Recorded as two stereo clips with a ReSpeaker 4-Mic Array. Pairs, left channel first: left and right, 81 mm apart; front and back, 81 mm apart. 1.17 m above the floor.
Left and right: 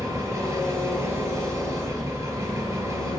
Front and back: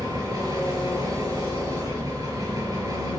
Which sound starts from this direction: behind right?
An engine running, at 0.0 s.